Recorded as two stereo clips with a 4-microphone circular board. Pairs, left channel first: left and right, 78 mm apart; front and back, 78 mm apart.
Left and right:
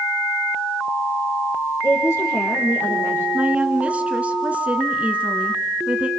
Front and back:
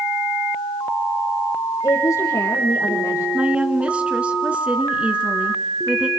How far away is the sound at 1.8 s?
About 4.5 m.